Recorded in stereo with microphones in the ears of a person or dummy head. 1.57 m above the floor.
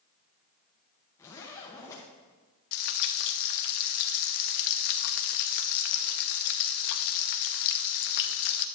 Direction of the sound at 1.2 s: 15° left (ahead or behind).